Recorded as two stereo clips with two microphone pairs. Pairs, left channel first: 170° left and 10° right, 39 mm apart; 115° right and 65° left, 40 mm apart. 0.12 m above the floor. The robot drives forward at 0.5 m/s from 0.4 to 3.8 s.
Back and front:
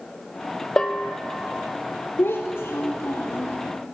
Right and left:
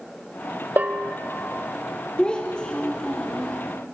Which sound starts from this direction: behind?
A child speaking, at 2.2 s.